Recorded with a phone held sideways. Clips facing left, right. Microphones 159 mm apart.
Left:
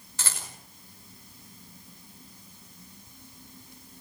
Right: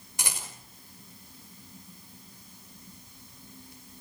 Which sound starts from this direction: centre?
A rattle, at 0.2 s.